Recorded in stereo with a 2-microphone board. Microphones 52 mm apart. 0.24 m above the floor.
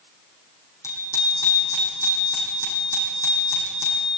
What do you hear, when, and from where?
0.8 s a bicycle bell: 80° left, 6.5 m; by 4.1 s 65° left (ahead or behind), 8 m